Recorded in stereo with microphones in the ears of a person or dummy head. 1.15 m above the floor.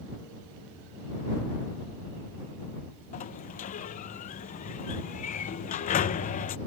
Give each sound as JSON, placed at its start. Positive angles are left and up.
{"t": 3.1, "sound": "a sliding door", "side_deg": 40}